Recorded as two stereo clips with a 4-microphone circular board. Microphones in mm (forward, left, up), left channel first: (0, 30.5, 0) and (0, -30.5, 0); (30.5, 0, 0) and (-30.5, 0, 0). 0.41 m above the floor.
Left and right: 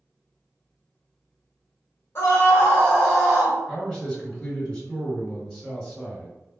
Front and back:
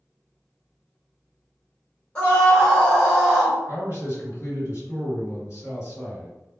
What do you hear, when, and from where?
2.1 s a scream: 65° left, 1.5 m; by 3.6 s 100° right, 1.1 m
3.7 s a man speaking: 5° left, 1.8 m